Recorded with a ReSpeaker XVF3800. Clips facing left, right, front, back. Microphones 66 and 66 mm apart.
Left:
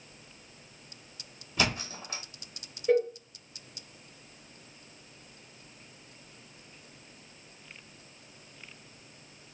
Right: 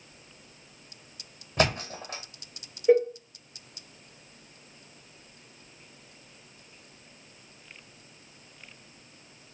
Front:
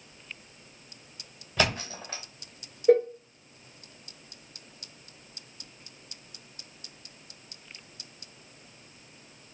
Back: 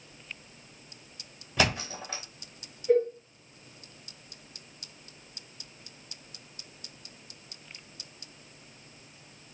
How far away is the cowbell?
About 0.6 m.